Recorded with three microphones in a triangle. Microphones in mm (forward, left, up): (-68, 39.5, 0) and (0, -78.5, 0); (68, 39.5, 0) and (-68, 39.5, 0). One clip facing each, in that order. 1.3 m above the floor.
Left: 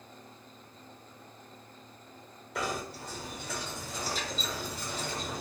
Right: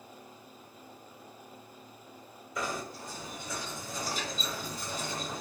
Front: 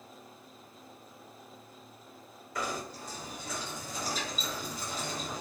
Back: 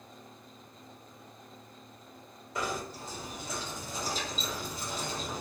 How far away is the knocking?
About 1.0 m.